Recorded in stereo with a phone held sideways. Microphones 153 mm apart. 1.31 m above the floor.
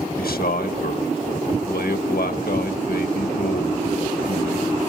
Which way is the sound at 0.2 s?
85° left.